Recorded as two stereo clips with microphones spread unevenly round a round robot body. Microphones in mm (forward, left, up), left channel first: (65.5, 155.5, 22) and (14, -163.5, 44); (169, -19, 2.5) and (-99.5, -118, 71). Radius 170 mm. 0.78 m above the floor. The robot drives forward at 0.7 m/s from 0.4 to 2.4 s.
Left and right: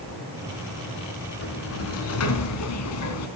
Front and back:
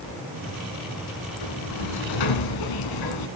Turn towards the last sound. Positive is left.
turn(degrees=40)